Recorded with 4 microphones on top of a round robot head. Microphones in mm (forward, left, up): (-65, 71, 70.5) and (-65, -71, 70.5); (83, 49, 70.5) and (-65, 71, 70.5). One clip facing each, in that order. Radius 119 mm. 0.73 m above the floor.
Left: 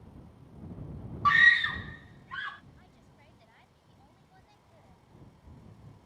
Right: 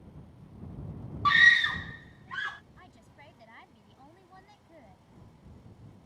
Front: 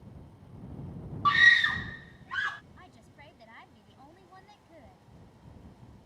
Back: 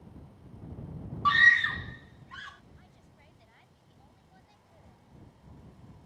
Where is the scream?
110° right; by 2.6 s 35° right.